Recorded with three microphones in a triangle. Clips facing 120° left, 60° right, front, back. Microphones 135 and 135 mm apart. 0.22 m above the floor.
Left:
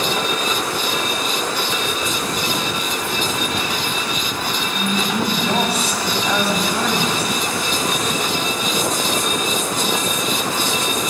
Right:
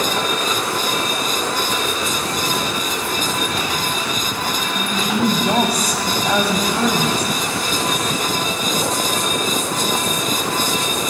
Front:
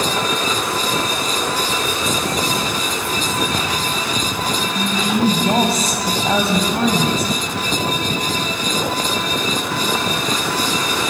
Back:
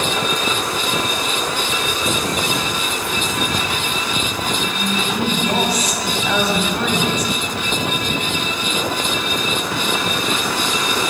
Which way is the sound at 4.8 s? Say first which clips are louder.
Even, front 6 dB; 10° right.